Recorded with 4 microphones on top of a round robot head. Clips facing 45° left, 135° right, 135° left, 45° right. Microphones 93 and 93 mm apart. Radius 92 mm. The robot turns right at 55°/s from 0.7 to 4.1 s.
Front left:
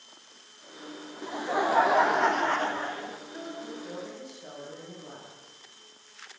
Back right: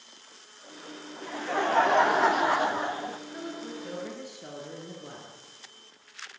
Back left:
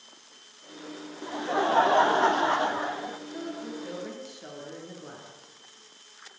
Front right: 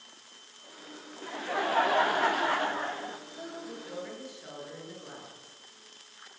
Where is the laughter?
90° left, 0.8 m; by 3.2 s 160° right, 0.8 m.